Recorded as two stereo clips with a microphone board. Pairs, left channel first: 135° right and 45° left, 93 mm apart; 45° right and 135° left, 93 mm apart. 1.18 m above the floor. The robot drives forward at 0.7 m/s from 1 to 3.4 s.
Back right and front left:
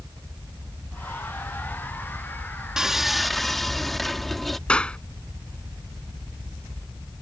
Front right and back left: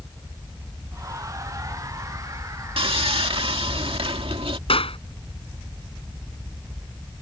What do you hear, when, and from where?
2.8 s sawing: 130° left; by 4.6 s 140° left
4.7 s a clap: 55° right